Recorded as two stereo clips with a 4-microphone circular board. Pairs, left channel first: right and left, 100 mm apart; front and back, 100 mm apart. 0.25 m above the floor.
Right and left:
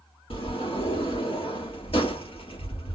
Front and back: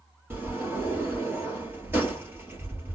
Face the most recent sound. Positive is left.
turn(degrees=-110)